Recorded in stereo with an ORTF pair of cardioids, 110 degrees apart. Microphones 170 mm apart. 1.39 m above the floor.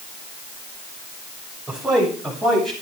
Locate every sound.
1.7 s a man speaking: 5° right, 6.5 m; by 2.7 s straight ahead, 7 m